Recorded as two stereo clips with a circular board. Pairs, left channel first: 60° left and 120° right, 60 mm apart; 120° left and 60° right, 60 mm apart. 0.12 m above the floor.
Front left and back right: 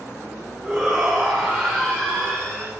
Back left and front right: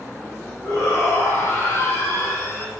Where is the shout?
145° left, 6.5 m; by 2.7 s 135° left, 7 m.